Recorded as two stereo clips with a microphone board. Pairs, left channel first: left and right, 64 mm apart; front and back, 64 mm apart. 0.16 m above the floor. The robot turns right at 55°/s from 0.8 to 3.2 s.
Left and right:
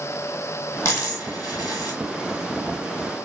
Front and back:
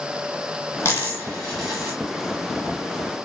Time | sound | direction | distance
0.8 | a dropped coin | 50° left | 1.5 m